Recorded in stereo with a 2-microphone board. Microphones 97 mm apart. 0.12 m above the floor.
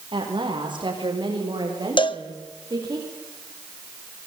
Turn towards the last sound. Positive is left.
turn(degrees=60)  # may be behind; listen again after turning